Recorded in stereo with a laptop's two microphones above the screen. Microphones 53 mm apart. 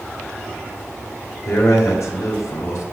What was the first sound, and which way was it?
A man speaking, 80° left.